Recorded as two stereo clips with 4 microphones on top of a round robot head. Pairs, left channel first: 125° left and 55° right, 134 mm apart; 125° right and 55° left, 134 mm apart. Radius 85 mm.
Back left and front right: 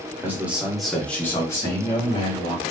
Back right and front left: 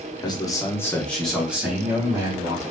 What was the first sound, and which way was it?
A man speaking, 115° right.